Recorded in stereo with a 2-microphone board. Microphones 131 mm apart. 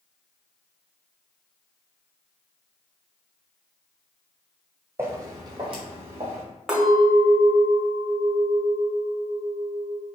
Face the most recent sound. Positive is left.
turn(degrees=-5)  # may be behind; listen again after turning